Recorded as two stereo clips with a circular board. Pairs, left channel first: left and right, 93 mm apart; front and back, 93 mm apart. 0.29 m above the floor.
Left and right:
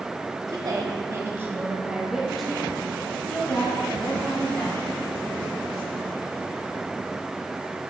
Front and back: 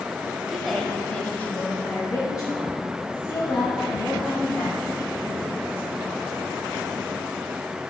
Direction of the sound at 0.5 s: 95° right.